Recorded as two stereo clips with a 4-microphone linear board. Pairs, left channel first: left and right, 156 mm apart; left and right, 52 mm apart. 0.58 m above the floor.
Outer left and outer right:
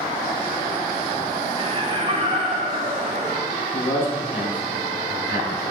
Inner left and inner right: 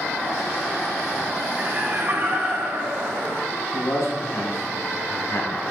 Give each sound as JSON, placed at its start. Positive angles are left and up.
{"t": 1.6, "sound": "laughter", "side_deg": -40, "distance_m": 2.0}
{"t": 3.7, "sound": "a man speaking", "side_deg": 75, "distance_m": 3.5}